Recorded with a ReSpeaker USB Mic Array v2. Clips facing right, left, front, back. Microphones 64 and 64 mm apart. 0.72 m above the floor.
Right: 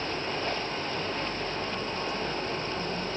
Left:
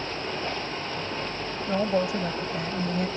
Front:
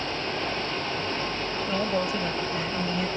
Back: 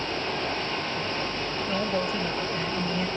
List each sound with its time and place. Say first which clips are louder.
1.7 s a woman speaking: left 7 dB, front 1 dB; 85° left